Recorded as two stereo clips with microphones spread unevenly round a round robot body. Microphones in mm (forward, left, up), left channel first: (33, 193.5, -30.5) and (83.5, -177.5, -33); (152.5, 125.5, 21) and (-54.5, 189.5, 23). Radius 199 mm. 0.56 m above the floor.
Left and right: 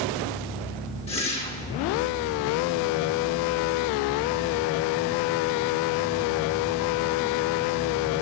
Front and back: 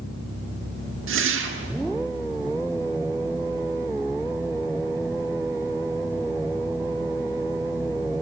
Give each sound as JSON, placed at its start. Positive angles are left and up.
{"t": 1.1, "sound": "a whoosh", "azimuth_deg": 170, "distance_m": 1.1}